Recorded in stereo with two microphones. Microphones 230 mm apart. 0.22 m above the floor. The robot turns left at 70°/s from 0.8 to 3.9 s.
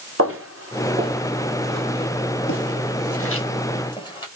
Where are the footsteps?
70° right (ahead or behind), 4 m; by 4.3 s 20° left (ahead or behind), 5.5 m.